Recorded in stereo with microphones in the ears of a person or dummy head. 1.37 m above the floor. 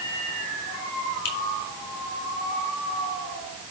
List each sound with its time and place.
1.2 s a finger snap: 70° left (ahead or behind), 4.5 m